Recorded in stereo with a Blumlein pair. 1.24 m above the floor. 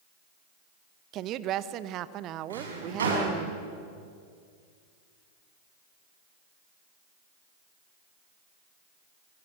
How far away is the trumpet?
I don't hear a trumpet.